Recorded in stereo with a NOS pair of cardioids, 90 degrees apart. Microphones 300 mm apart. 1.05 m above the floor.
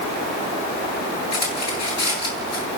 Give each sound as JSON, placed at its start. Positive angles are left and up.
{"t": 1.3, "sound": "cutlery clinking", "azimuth_deg": 55, "distance_m": 9.0}